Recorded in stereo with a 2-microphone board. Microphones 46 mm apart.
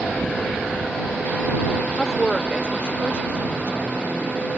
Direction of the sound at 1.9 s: 25° left (ahead or behind).